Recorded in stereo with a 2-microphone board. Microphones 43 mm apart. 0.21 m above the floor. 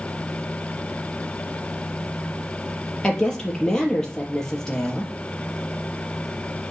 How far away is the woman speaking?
About 5 m.